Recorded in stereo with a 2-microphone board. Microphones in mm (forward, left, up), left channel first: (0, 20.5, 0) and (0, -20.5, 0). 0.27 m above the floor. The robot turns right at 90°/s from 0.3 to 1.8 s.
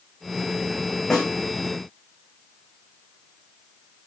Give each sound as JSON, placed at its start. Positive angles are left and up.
{"t": 1.1, "sound": "a snare drum", "side_deg": 15, "distance_m": 5.5}